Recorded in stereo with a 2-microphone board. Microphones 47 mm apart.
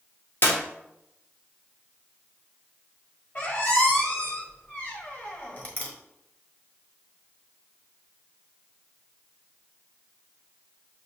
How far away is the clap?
About 0.9 m.